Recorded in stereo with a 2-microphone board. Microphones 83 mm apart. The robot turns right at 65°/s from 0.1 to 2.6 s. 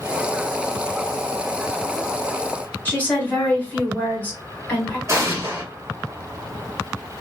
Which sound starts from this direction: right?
An explosion, at 5.1 s.